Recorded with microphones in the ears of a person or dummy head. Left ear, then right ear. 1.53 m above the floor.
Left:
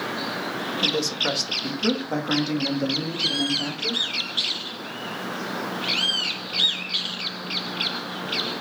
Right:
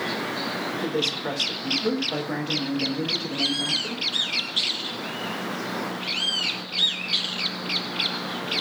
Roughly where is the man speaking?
Left.